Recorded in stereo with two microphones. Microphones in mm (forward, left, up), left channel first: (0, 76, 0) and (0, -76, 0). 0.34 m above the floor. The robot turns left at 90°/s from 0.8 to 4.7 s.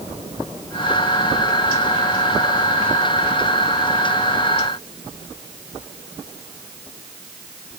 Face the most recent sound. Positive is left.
No sound to turn to.